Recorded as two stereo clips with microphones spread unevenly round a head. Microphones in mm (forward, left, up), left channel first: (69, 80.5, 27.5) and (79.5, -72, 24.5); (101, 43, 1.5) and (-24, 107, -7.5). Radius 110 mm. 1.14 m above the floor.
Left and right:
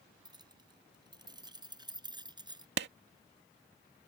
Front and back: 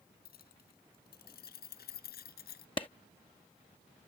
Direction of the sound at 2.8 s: 95° right.